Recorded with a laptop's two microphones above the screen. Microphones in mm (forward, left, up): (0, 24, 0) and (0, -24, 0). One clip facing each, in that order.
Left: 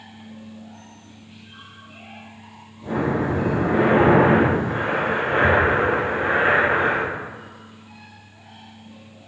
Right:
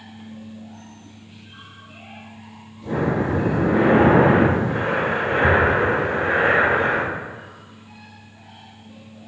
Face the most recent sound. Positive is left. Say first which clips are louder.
# even
turn(degrees=15)  # may be behind; listen again after turning